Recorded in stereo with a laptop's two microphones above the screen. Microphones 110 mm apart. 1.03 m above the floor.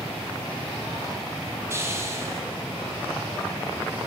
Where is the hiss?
25° right (ahead or behind), 5.5 m.